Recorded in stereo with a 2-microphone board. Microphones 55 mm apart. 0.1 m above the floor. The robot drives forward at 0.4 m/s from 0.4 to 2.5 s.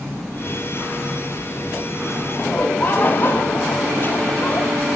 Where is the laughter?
40° left (ahead or behind), 2.5 m.